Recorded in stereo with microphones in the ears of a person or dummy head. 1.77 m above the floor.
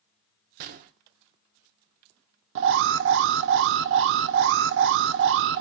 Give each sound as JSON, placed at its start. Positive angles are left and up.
{"t": 0.6, "sound": "a gunshot", "side_deg": -45, "distance_m": 0.7}
{"t": 2.5, "sound": "an alarm", "side_deg": -55, "distance_m": 0.6}